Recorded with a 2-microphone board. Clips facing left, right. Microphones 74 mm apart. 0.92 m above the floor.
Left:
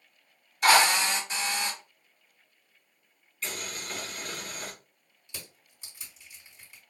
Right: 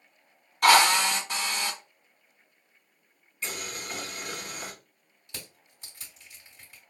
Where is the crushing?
60° right (ahead or behind), 2.5 m.